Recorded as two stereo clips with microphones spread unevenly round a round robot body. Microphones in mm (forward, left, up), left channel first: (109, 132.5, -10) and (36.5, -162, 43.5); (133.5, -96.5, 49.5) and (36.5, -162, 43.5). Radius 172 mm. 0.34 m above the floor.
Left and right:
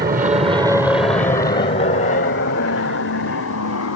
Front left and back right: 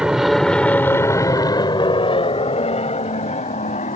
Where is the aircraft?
75° right; by 4.0 s 50° left.